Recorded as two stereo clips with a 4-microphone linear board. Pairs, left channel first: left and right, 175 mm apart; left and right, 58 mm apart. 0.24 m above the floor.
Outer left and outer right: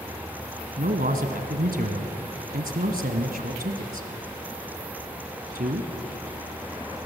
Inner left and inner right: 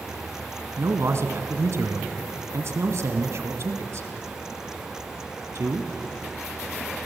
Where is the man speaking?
60° right (ahead or behind), 1.9 m.